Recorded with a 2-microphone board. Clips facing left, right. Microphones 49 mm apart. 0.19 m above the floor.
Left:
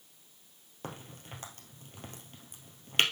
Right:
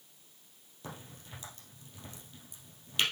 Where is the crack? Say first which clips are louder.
Left 3 dB; 45° left (ahead or behind), 2 m.